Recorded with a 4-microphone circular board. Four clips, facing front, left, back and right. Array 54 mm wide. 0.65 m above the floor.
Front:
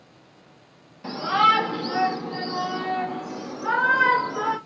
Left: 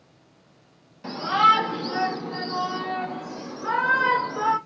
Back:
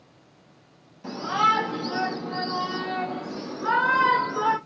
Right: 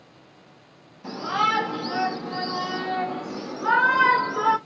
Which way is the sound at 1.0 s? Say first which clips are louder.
Left 5 dB, front 3 dB; 50° left.